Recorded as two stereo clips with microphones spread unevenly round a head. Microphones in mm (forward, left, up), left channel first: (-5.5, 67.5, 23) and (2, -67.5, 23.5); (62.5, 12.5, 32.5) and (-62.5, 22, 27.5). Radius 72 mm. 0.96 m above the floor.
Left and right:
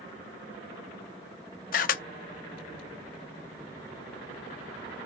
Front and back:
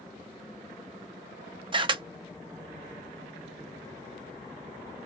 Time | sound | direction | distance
1.7 | a camera shutter | 125° left | 0.5 m